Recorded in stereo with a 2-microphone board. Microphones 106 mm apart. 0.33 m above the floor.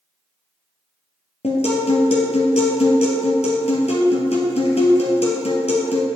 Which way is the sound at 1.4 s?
80° left.